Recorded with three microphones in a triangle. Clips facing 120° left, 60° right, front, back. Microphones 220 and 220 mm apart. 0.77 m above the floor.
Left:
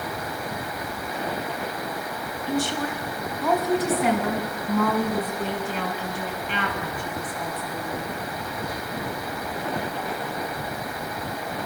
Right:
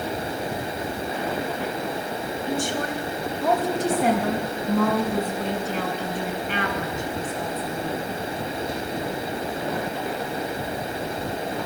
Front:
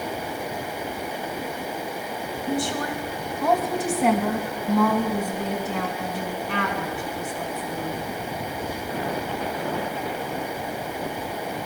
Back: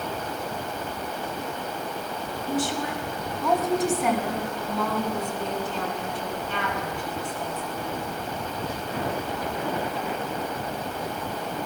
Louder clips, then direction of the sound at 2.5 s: Left 2 dB, front 1 dB; 25° right.